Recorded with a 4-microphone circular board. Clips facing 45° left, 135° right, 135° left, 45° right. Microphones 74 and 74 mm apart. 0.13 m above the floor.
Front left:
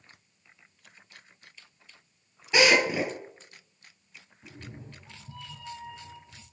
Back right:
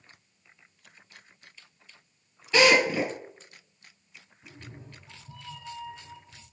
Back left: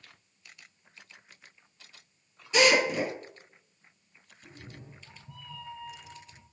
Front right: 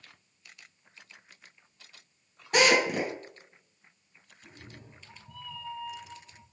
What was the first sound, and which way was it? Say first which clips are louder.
A drill: back right 1 dB, even; 25° right.